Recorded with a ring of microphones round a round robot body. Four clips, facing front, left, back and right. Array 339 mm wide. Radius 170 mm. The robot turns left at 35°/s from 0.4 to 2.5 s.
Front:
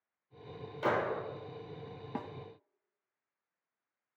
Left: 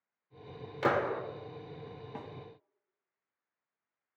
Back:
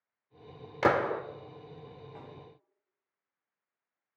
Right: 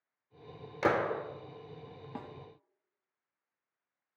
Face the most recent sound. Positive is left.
turn(degrees=-20)